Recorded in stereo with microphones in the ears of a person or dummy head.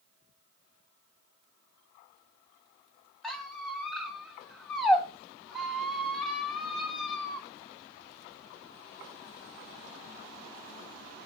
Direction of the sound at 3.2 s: Centre (ahead or behind).